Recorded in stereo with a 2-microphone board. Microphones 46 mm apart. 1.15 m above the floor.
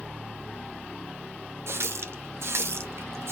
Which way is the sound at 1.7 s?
70° right (ahead or behind).